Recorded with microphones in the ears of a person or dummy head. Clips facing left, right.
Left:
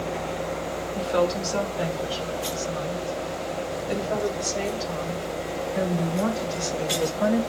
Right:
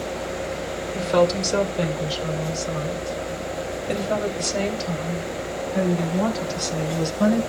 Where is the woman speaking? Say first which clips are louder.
Right 4 dB; 70° right (ahead or behind), 4 m; by 7.4 s 65° right (ahead or behind), 8 m.